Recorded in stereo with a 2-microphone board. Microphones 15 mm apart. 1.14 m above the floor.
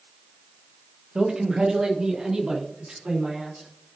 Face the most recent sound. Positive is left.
turn(degrees=-65)  # may be behind; listen again after turning